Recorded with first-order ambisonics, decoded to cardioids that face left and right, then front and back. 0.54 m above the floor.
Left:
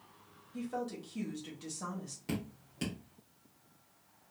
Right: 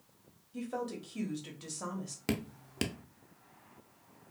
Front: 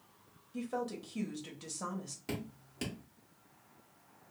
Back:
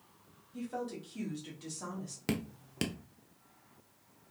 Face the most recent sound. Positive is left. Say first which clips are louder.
# right 5 dB, back 6 dB
turn(degrees=-130)